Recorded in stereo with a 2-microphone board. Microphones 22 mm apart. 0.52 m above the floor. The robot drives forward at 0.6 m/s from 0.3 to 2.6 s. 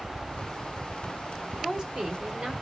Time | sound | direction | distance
1.6 | a woman speaking | 45° right (ahead or behind) | 1.4 m